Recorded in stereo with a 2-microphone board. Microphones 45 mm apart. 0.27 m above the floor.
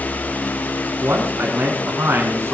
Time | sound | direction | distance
1.0 | a man speaking | 60° right (ahead or behind) | 2 m